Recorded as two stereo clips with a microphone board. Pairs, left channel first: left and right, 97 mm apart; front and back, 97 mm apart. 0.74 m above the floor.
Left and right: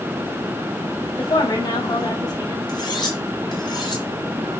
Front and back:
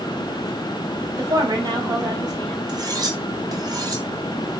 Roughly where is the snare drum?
No snare drum in this recording.